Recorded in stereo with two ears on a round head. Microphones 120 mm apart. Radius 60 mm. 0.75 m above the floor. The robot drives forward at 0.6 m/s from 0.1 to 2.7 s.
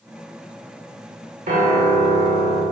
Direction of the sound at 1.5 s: 55° right (ahead or behind).